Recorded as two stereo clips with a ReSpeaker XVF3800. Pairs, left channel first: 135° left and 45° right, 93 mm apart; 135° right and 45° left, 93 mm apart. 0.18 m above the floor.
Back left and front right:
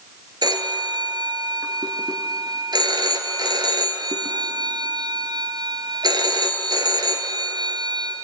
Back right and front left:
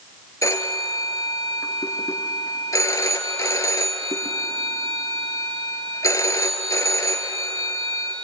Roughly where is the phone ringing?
Right.